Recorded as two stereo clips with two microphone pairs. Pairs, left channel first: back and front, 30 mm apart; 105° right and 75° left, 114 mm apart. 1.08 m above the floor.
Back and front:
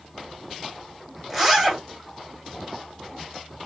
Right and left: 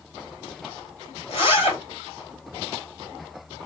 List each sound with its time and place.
1.3 s a zipper: 85° right, 1.6 m